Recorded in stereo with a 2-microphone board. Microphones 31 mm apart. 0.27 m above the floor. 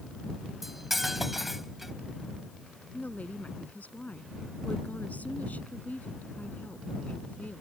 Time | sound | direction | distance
0.6 | cutlery clinking | 5° right (ahead or behind) | ?
2.9 | a woman speaking | 60° left (ahead or behind) | ?